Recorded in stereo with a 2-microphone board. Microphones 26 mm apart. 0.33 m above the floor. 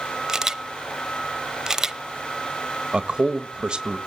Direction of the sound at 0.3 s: 20° right (ahead or behind).